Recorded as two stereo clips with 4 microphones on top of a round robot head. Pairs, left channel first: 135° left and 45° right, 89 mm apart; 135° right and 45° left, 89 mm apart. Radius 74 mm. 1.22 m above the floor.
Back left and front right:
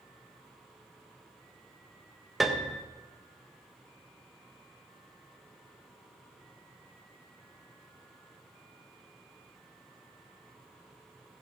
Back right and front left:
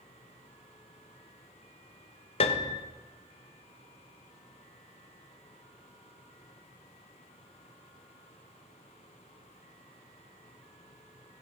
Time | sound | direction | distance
2.4 | a piano | 135° right | 1.2 m